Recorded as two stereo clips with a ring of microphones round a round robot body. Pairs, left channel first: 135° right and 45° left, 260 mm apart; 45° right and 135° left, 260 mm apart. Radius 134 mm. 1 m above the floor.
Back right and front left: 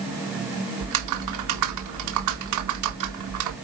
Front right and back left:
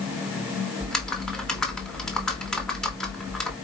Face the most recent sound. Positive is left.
turn(degrees=45)